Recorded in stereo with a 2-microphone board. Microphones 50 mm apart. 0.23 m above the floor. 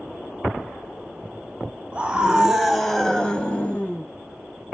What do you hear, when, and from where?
1.9 s a scream: 20° right (ahead or behind), 1.2 m; by 4.0 s 35° left (ahead or behind), 1.3 m